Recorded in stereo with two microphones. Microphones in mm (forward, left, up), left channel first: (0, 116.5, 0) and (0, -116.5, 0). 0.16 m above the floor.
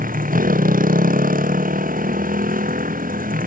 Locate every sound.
0.0 s a motorcycle: 35° right (ahead or behind)